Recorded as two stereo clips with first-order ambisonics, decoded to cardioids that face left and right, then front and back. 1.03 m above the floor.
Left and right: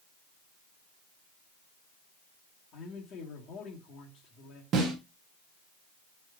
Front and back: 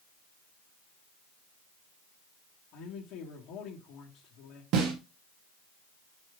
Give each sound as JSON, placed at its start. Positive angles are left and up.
{"t": 2.7, "sound": "a man speaking", "azimuth_deg": 40, "distance_m": 1.7}
{"t": 4.7, "sound": "a snare drum", "azimuth_deg": -140, "distance_m": 1.6}